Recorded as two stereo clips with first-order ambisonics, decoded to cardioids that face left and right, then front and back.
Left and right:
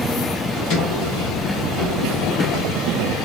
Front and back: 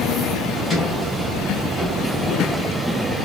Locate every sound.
0.6 s a sliding door: 80° left, 1.4 m